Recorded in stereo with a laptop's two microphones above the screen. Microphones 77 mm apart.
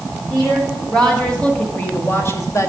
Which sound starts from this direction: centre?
A woman speaking, at 0.3 s.